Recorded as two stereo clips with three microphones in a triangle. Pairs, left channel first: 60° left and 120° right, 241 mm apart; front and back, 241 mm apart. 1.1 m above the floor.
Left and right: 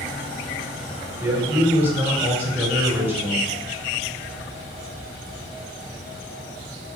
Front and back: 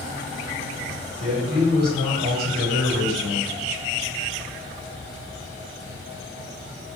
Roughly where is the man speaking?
Behind.